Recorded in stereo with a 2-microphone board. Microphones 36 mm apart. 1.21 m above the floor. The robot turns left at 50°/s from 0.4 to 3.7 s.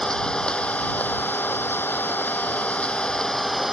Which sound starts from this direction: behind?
An engine running, at 0.0 s.